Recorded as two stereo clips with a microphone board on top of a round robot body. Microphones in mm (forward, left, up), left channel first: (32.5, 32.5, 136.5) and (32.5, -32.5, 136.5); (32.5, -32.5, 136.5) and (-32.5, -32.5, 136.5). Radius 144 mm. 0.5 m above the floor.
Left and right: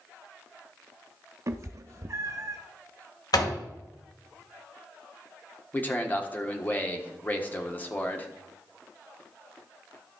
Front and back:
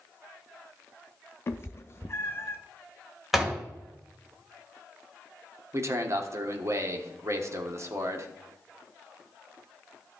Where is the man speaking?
145° left, 1.5 m.